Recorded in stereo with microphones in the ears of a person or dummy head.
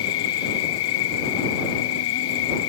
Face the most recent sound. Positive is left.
turn(degrees=80)